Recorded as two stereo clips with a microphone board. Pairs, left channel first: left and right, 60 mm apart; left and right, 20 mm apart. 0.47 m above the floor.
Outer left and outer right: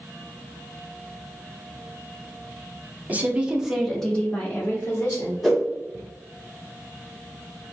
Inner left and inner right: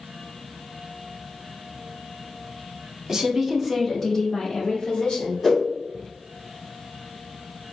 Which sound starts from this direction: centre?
A whoosh, at 5.4 s.